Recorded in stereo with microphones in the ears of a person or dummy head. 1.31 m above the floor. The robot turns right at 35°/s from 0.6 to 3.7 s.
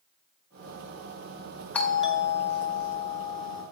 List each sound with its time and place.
1.7 s a doorbell: 165° left, 1.2 m; by 3.6 s 130° right, 1.2 m